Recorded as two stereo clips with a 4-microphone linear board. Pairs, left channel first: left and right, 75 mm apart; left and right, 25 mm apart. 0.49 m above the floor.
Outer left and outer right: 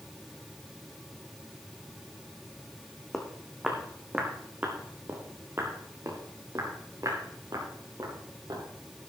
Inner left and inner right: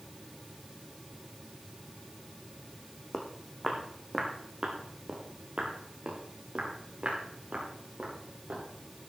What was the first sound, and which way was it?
Footsteps, 5° left (ahead or behind).